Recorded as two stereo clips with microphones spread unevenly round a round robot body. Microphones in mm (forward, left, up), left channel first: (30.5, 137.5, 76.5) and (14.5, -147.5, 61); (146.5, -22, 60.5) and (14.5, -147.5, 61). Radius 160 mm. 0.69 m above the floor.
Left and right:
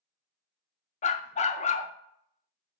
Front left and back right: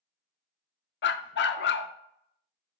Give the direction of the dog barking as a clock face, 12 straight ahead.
11 o'clock.